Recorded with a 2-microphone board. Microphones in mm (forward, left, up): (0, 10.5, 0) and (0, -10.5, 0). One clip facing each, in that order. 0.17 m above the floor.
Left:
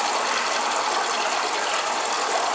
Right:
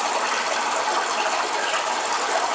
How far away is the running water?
About 8 m.